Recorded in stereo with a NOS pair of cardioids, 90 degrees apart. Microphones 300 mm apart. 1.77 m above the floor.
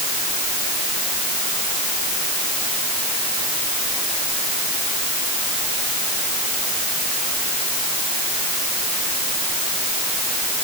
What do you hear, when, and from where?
Only background noise.